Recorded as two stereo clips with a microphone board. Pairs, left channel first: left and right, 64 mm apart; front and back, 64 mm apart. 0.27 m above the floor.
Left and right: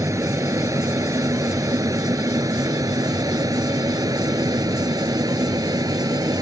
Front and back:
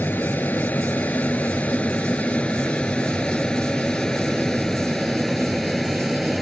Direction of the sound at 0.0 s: 60° right.